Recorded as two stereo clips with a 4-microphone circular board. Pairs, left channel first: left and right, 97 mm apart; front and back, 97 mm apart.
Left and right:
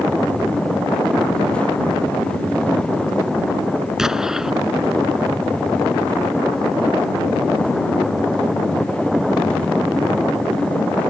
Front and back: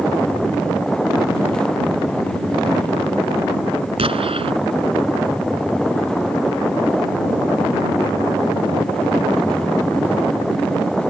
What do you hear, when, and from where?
4.0 s an explosion: 175° right